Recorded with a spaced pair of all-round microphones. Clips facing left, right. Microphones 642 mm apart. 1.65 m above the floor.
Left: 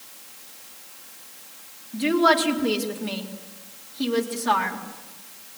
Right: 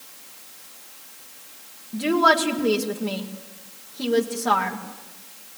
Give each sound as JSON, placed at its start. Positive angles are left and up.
{"t": 1.9, "sound": "a woman speaking", "side_deg": -65, "distance_m": 2.5}